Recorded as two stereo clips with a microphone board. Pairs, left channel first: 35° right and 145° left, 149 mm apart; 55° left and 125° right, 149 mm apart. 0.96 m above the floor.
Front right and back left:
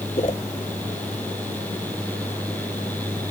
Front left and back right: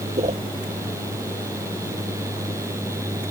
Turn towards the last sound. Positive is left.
turn(degrees=-80)